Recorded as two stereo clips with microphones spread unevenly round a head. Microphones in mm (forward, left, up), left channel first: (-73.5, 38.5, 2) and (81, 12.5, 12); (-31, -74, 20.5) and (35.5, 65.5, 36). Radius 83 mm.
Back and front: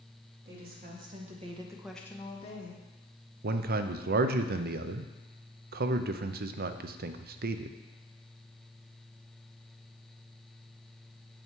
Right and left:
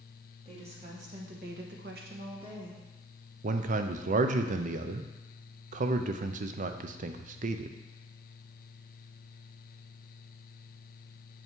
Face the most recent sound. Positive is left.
turn(degrees=20)